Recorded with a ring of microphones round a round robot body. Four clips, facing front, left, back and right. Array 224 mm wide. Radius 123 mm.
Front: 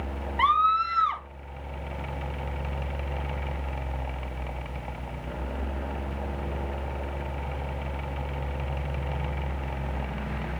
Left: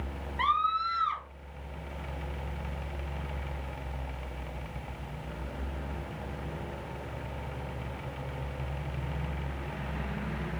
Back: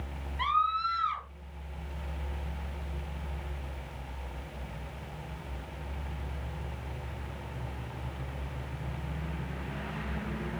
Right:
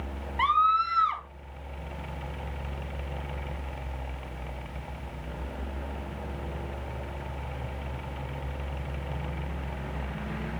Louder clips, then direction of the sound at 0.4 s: Right 5 dB, front 6 dB; 20° right.